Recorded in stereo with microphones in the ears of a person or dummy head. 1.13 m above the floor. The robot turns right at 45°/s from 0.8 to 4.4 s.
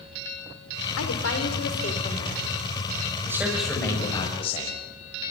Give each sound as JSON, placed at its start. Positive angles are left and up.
{"t": 1.0, "sound": "a woman speaking", "azimuth_deg": 100, "distance_m": 4.5}
{"t": 3.3, "sound": "a man speaking", "azimuth_deg": -15, "distance_m": 6.5}